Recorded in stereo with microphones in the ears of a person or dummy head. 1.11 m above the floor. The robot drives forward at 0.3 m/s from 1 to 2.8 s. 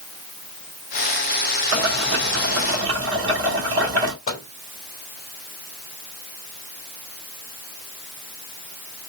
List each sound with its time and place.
1.7 s boiling: 80° right, 2 m; by 4.1 s 70° right (ahead or behind), 2.5 m
4.3 s a microwave: 35° left (ahead or behind), 1.4 m